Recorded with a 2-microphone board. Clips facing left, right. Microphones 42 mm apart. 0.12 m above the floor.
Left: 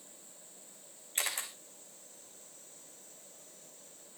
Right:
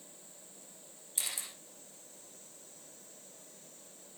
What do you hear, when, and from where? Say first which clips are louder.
1.1 s a camera shutter: left 5 dB; 50° left (ahead or behind), 2.5 m